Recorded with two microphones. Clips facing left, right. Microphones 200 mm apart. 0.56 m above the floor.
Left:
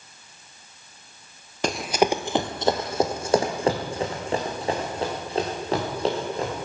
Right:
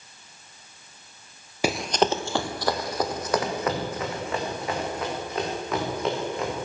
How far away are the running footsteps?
About 0.5 m.